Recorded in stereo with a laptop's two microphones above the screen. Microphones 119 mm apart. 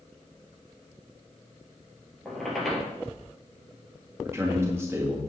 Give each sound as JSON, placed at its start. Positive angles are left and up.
{"t": 2.2, "sound": "a squeak", "side_deg": 0, "distance_m": 4.0}
{"t": 4.2, "sound": "a man speaking", "side_deg": -20, "distance_m": 2.0}